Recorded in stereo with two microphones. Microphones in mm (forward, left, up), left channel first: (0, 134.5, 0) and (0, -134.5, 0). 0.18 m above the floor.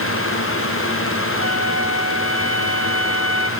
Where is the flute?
70° left (ahead or behind), 2.0 m.